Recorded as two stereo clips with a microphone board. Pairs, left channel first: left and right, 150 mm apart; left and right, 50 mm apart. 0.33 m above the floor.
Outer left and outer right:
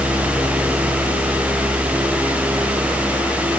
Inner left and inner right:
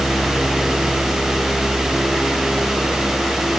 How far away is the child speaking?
I don't hear a child speaking.